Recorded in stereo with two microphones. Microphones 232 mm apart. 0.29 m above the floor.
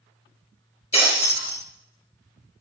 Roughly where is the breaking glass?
Left.